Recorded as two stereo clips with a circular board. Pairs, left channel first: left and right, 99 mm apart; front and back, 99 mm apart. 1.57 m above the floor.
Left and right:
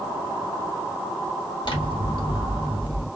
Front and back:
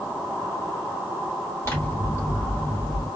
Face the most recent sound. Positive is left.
turn(degrees=65)